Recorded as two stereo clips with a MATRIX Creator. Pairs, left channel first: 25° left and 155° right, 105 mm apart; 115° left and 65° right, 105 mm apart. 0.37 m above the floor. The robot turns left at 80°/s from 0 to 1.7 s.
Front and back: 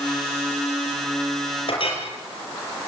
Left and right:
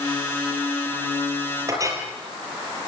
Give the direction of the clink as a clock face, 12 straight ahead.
12 o'clock.